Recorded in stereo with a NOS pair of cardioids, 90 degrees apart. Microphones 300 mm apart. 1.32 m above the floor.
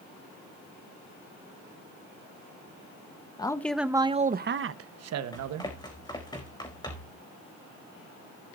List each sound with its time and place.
3.4 s a man speaking: 15° left, 1.1 m; by 5.7 s 75° right, 1.5 m
5.3 s running footsteps: 15° left, 5 m